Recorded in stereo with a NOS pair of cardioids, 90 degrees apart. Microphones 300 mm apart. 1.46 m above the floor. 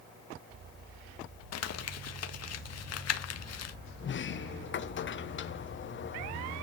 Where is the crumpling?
55° left, 1.7 m.